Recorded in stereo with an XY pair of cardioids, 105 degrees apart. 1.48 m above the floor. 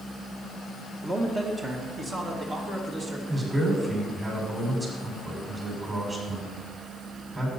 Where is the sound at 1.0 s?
25° right, 1.5 m; by 3.2 s 55° right, 2.5 m.